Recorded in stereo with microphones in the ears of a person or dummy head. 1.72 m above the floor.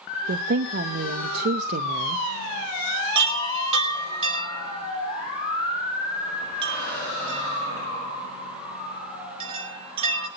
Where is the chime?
30° right (ahead or behind), 5.5 m.